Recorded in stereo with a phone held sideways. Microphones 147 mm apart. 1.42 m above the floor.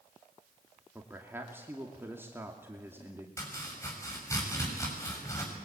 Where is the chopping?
20° left (ahead or behind), 7 m.